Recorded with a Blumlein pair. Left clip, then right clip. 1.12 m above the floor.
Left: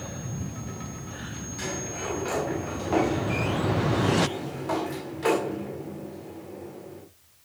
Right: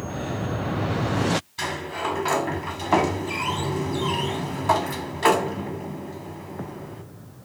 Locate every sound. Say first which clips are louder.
1.6 s a sliding door: right 5 dB; 70° right, 2 m